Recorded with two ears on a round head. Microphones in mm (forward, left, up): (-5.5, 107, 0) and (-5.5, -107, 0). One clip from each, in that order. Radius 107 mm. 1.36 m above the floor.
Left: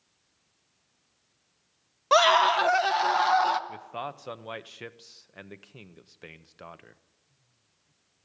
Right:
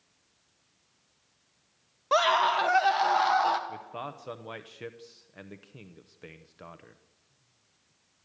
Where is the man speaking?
25° left (ahead or behind), 0.8 m.